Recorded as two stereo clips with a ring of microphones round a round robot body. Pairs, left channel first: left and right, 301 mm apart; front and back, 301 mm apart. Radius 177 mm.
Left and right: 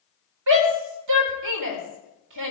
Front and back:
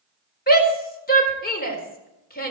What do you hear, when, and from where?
0.5 s a shout: 60° right, 4 m